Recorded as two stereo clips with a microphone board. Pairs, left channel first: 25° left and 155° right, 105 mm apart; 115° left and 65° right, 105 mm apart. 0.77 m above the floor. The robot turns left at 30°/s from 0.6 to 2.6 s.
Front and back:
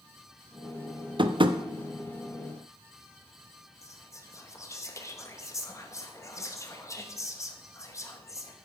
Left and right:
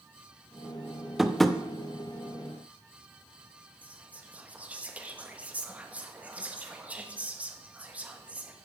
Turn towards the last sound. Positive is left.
turn(degrees=-5)